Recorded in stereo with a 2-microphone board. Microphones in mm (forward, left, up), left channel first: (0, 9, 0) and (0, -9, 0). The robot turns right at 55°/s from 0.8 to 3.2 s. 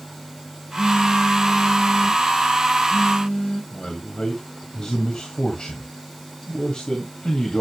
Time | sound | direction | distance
0.8 | a phone buzzing | 50° right | 7.5 m
3.7 | a man speaking | 60° left (ahead or behind) | 2 m